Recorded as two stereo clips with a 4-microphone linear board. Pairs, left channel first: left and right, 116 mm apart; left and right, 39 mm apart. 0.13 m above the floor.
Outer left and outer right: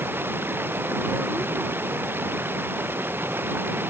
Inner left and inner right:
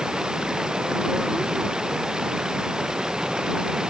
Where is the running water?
15° right (ahead or behind).